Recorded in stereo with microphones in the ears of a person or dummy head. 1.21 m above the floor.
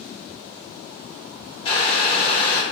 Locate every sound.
1.6 s boiling: 35° left (ahead or behind), 0.9 m